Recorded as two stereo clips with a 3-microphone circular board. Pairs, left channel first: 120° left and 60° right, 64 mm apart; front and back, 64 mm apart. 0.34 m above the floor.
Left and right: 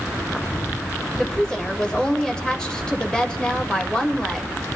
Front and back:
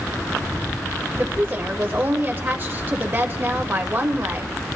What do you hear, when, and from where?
1.2 s a woman speaking: 170° right, 1.2 m